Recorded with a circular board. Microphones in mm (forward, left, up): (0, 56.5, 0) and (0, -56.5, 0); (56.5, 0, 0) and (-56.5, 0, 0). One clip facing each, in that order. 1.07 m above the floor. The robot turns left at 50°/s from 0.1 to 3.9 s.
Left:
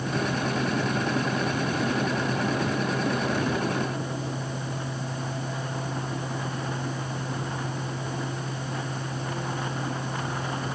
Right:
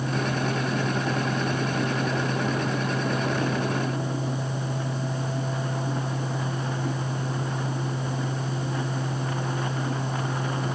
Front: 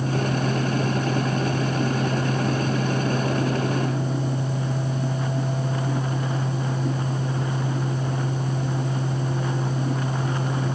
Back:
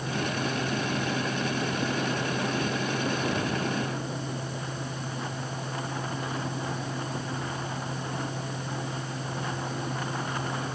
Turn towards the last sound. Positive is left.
No sound to turn to.